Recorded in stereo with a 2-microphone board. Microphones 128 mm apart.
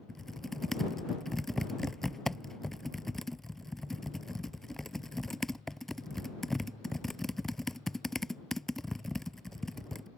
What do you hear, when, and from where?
0.1 s typing on a keyboard: centre (ahead or behind)